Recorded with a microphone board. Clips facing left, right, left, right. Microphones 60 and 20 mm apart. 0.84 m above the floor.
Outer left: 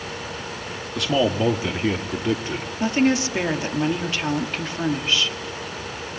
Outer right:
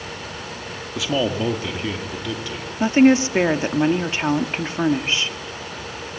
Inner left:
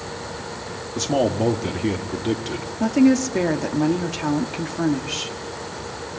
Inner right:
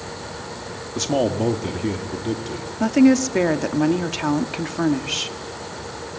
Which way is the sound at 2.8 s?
25° right (ahead or behind).